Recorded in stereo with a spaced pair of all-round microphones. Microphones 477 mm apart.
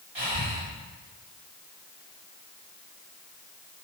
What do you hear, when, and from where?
0.1 s breathing: 55° right (ahead or behind), 2.5 m